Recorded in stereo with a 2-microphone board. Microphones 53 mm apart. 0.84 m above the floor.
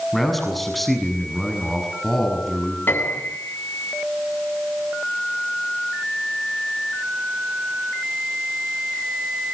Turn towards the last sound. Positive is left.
turn(degrees=40)  # may be behind; listen again after turning